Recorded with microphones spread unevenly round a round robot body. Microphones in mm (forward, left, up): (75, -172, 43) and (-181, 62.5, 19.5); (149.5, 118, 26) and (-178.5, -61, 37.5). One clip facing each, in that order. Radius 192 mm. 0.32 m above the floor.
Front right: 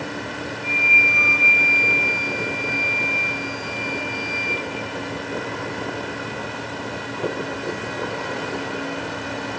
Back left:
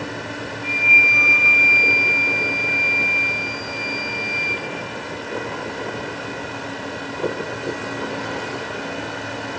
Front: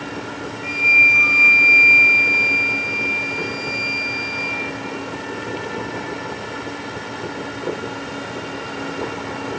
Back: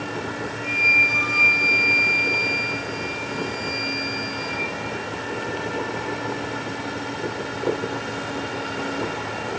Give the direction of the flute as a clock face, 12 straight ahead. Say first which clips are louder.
Even, front 1 dB; 9 o'clock.